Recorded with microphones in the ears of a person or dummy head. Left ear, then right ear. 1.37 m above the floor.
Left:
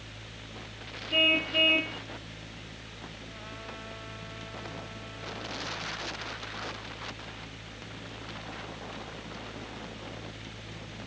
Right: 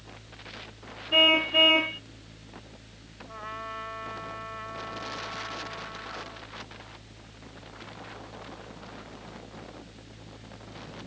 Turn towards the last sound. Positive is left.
turn(degrees=-50)  # may be behind; listen again after turning